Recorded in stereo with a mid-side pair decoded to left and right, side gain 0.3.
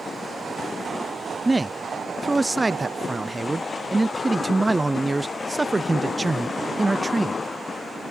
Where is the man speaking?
20° right.